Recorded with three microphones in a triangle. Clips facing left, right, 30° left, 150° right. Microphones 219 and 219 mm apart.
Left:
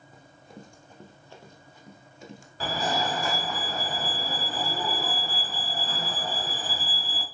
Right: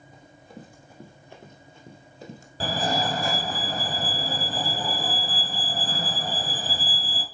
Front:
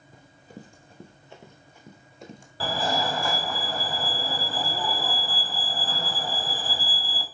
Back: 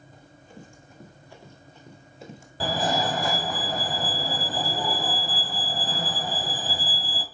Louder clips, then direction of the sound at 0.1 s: Right 2 dB, front 2 dB; 5° left.